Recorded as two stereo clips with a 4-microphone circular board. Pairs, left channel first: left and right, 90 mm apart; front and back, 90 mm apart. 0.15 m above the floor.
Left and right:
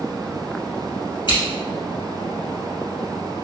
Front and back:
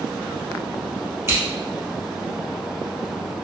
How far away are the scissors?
About 2.0 m.